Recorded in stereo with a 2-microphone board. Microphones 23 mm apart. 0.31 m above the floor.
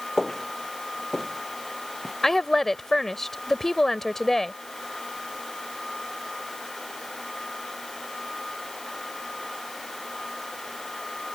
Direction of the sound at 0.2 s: 15° left (ahead or behind).